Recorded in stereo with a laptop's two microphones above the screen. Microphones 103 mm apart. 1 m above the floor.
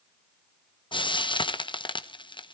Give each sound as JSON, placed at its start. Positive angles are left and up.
{"t": 0.9, "sound": "frying", "side_deg": 50, "distance_m": 0.6}